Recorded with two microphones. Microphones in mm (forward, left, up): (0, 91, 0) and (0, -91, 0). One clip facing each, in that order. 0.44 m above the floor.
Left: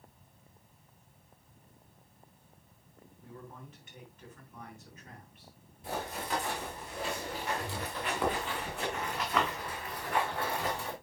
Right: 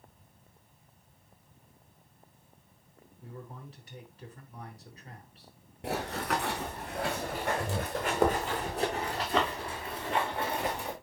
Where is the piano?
I don't hear a piano.